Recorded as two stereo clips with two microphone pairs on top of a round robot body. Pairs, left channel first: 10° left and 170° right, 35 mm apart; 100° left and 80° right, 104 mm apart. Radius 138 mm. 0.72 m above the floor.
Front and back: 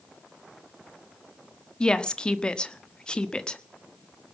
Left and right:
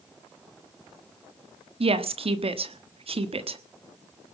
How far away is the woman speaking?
About 1.4 m.